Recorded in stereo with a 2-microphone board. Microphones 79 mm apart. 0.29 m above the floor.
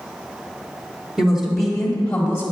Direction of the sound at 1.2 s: 10° right (ahead or behind).